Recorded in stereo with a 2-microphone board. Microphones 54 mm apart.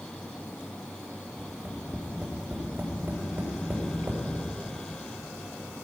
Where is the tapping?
40° right (ahead or behind), 2.5 m.